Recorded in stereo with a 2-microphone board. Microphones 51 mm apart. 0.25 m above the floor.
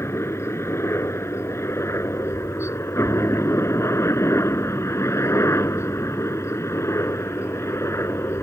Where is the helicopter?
60° left (ahead or behind).